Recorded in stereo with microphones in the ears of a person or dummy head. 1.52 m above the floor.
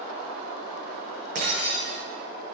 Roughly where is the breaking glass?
Right.